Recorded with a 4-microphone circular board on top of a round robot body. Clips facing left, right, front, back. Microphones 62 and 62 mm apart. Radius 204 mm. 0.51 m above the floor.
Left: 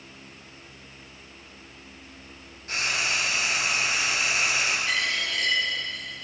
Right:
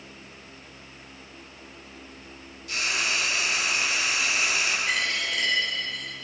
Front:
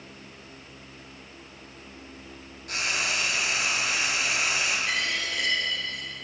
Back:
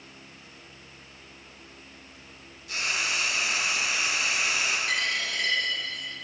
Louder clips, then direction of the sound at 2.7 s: Even, front 1 dB; 35° left.